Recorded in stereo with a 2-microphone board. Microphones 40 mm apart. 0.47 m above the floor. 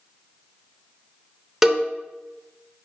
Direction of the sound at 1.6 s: 10° right (ahead or behind).